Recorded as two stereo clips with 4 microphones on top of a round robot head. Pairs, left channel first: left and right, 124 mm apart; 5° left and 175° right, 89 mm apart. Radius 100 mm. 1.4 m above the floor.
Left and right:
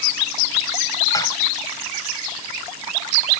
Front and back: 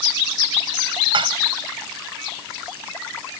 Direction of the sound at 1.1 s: 160° left.